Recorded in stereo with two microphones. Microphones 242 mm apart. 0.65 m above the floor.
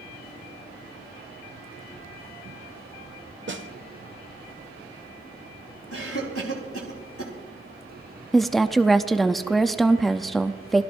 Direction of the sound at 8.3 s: Centre (ahead or behind).